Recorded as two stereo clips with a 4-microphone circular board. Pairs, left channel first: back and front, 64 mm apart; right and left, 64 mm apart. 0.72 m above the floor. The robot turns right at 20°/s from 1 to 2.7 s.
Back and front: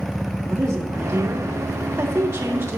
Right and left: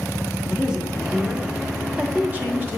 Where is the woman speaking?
15° left, 1.7 m; by 2.8 s 50° left, 1.7 m.